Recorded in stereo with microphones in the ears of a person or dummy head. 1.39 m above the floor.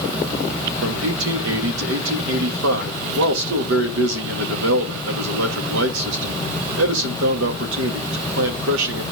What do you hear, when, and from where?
0.8 s a man speaking: 70° right (ahead or behind), 2.5 m